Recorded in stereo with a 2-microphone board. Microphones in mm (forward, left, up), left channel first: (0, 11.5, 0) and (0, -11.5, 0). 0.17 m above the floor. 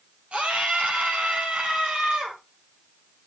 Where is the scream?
70° right (ahead or behind), 5 m; by 2.4 s 65° right (ahead or behind), 6 m.